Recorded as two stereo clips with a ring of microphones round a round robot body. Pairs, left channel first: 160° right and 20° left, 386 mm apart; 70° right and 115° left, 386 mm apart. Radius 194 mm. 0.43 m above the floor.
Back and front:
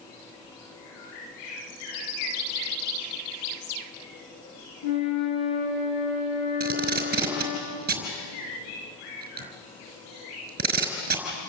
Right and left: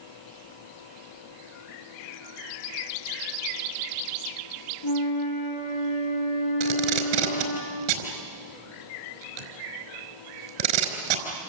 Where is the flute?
110° right, 7 m.